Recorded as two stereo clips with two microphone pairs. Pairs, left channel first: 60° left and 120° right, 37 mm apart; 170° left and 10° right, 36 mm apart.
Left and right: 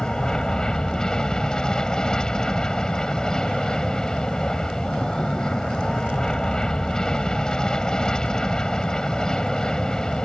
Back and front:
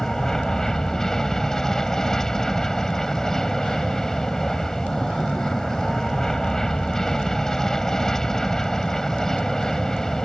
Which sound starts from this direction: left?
An aircraft, at 0.0 s.